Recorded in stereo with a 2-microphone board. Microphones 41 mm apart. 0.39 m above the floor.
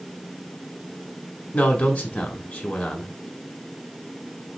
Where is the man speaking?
30° left (ahead or behind), 1.2 m.